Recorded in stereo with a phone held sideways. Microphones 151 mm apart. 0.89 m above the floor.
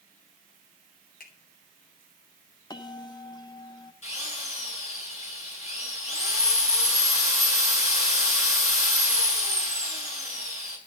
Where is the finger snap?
75° left (ahead or behind), 3.5 m.